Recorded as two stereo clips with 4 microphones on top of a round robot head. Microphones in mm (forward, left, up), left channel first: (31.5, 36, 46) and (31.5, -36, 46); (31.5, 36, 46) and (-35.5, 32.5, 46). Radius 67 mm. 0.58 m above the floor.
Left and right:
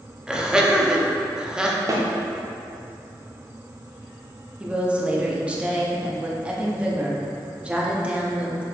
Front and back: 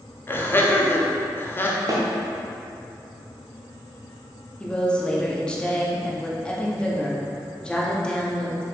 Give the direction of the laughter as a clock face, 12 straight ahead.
1 o'clock.